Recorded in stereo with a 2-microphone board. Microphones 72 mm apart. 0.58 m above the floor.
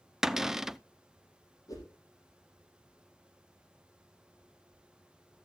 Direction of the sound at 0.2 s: 5° right (ahead or behind).